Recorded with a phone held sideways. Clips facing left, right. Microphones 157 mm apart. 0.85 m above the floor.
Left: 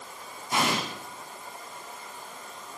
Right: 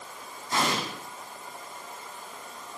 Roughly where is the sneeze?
No sneeze in this recording.